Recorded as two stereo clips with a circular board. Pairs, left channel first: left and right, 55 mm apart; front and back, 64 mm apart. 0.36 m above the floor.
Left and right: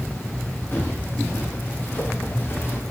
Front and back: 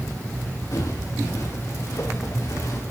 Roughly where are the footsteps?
Ahead left.